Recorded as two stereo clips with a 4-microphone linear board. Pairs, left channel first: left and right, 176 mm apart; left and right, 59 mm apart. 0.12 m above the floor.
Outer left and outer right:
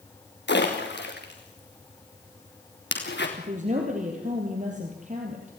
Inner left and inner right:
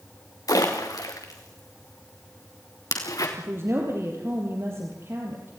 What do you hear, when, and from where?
0.5 s a splash: 80° left, 4 m
3.4 s a woman speaking: 45° right (ahead or behind), 3.5 m